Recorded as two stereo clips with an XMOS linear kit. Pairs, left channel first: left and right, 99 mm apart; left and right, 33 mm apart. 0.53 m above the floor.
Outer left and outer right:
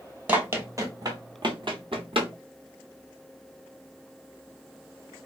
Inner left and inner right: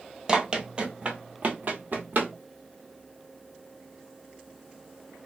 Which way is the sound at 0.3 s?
20° right (ahead or behind).